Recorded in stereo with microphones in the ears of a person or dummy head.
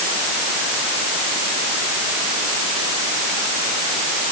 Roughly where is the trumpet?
No trumpet in this recording.